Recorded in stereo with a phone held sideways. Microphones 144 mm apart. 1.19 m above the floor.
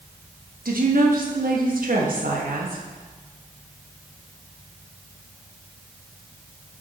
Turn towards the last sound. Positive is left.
turn(degrees=-85)